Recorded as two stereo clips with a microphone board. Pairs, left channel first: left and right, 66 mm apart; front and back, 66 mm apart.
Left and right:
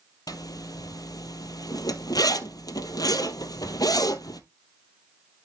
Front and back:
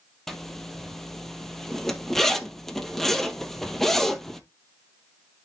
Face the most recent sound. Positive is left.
turn(degrees=85)